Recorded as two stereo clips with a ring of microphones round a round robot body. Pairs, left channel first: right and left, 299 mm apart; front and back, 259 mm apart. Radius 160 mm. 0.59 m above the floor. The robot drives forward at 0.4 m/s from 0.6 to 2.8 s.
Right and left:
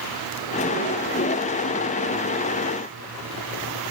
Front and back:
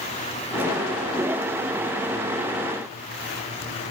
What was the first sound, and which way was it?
Only background noise.